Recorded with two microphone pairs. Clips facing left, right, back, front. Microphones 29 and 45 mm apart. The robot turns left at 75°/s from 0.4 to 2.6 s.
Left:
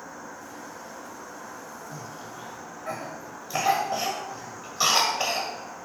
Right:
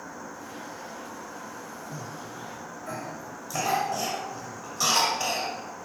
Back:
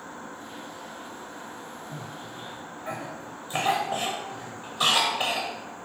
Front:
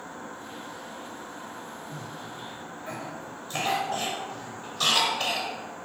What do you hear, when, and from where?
1.9 s a cough: 175° left, 1.4 m; by 5.5 s 125° left, 1.4 m